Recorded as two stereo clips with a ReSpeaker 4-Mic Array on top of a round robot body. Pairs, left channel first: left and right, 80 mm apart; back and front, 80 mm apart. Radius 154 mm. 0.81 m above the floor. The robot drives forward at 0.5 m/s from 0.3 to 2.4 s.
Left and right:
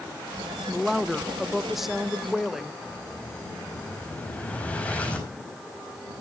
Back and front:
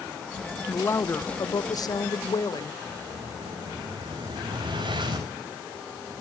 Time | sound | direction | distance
0.7 | a woman speaking | 170° right | 0.9 m
2.8 | an explosion | 15° left | 5 m